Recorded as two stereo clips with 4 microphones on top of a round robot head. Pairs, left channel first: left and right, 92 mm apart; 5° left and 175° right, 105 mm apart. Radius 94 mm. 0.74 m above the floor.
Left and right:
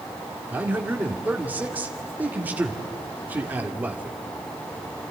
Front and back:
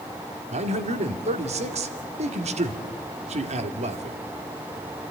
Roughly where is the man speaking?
Behind.